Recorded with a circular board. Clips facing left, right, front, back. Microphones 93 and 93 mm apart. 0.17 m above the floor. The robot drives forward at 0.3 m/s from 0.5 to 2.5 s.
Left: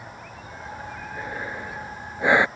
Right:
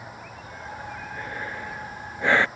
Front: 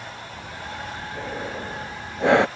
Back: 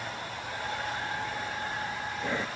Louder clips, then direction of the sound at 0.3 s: Left 1 dB, even; 15° left.